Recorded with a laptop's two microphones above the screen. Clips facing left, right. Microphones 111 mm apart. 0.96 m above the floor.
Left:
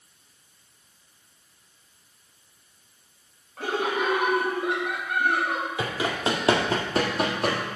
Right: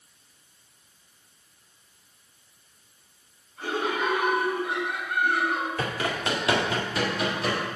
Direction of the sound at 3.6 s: 85° left.